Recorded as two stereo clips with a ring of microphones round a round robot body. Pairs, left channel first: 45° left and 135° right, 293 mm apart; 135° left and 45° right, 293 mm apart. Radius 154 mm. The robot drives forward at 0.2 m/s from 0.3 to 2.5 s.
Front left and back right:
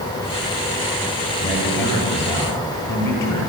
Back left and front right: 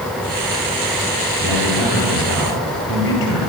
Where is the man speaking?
125° left, 10 m.